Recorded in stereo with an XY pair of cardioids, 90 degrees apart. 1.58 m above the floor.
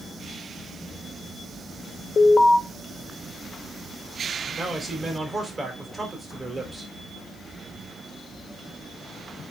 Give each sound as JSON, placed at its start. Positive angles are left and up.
{"t": 2.2, "sound": "an alarm", "azimuth_deg": 50, "distance_m": 1.6}
{"t": 4.5, "sound": "a man speaking", "azimuth_deg": -25, "distance_m": 4.0}